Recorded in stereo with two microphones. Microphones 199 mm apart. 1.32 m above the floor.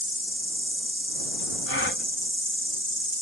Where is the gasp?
70° left (ahead or behind).